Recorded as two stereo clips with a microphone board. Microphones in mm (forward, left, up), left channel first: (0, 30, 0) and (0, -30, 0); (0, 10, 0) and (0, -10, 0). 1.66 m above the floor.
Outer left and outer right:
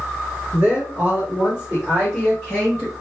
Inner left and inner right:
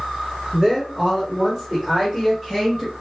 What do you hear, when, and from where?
0.5 s a woman speaking: 45° right (ahead or behind), 1.4 m; by 2.9 s 5° right (ahead or behind), 3.5 m